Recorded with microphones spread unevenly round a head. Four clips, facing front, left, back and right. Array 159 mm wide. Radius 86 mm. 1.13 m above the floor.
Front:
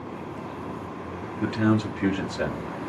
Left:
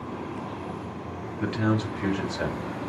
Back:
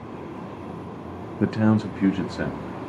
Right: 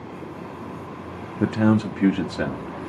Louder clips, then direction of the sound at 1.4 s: Right 7 dB, back 2 dB; 125° right.